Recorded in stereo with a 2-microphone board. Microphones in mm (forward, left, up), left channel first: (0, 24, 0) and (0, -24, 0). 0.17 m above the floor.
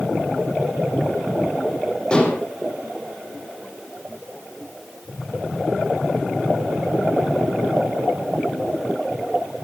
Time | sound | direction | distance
2.1 | dishes clattering | 15° left (ahead or behind) | 4.5 m